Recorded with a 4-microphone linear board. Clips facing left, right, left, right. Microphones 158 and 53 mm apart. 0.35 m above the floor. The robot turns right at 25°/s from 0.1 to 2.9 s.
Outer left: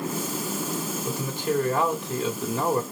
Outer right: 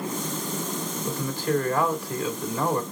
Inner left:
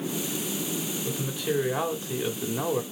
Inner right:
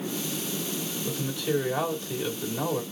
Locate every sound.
1.1 s a man speaking: 15° left (ahead or behind), 1.6 m; by 2.8 s 30° left (ahead or behind), 1.6 m